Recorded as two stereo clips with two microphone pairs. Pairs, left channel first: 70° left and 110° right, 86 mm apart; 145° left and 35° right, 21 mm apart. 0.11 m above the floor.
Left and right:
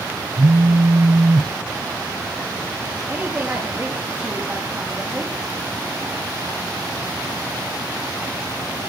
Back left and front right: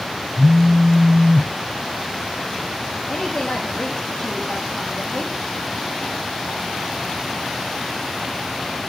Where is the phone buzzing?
135° right, 1.0 m.